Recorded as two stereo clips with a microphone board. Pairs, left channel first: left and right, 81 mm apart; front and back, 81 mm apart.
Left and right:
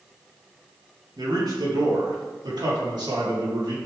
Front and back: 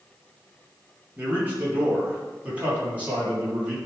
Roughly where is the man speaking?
Behind right.